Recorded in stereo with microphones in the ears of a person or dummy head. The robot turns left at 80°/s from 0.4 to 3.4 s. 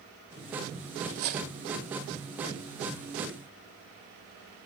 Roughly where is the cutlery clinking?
Ahead right.